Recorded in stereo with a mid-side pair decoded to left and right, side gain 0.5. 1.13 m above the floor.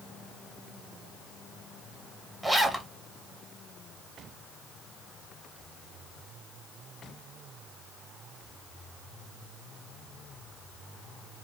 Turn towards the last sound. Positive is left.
turn(degrees=-5)